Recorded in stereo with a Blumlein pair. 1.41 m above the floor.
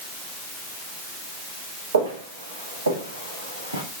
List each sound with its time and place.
1.9 s footsteps: 70° right, 6 m; by 3.8 s 75° right, 6 m